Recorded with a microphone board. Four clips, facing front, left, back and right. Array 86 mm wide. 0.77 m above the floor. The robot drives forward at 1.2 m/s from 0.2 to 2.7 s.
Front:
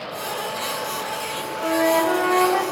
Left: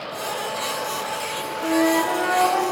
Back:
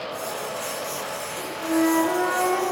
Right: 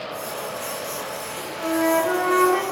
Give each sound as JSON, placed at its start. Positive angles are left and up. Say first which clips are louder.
{"t": 1.6, "sound": "a flute", "louder": "left 1 dB, front 1 dB", "azimuth_deg": -45, "distance_m": 3.0}